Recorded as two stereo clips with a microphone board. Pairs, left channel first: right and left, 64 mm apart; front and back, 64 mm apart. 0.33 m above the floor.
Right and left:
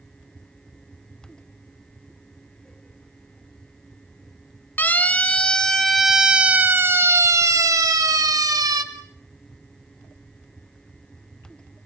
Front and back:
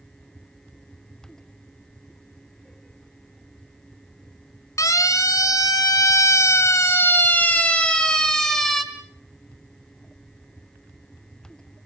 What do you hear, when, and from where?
4.8 s a siren: 30° right, 2.5 m; by 8.8 s 85° left, 3 m